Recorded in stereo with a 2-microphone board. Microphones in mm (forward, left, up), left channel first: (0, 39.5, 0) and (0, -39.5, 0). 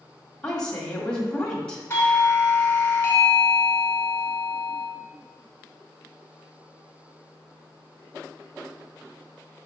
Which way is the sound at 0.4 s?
10° left (ahead or behind).